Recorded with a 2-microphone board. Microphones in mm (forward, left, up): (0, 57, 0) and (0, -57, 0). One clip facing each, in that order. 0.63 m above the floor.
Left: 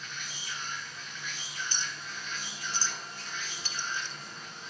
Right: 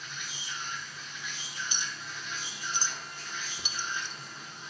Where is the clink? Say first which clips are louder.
Even; 15° right (ahead or behind), 0.5 m.